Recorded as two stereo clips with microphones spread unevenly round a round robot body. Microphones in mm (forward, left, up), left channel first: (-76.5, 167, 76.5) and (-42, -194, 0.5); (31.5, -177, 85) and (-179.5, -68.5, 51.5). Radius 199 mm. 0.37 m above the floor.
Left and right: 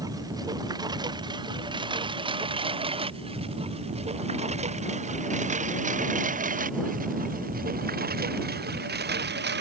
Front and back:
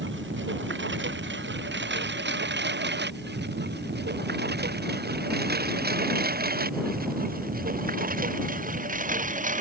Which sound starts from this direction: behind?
A lawn mower, at 0.0 s.